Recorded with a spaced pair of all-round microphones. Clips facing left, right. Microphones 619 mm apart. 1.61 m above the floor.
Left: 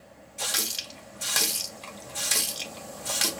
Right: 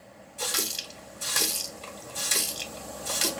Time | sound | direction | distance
0.4 | a running tap | 15° left (ahead or behind) | 0.6 m